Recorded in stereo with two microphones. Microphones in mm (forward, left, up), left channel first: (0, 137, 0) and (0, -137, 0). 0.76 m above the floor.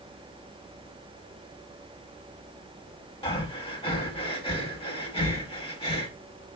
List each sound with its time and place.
3.2 s breathing: 20° left (ahead or behind), 0.6 m